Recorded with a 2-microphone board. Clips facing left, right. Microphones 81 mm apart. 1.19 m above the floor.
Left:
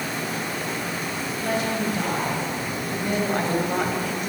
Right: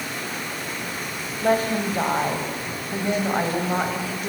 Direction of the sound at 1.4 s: 40° right (ahead or behind).